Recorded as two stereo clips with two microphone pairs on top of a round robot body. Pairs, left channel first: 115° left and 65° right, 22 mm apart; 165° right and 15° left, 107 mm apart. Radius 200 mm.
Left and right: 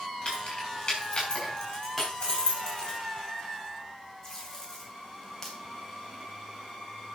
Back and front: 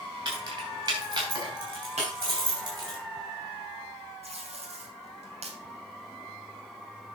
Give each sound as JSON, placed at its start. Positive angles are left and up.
{"t": 0.2, "sound": "keys jangling", "azimuth_deg": 65, "distance_m": 5.5}
{"t": 2.0, "sound": "breaking glass", "azimuth_deg": 25, "distance_m": 5.0}
{"t": 4.2, "sound": "tape being pulled", "azimuth_deg": 40, "distance_m": 2.5}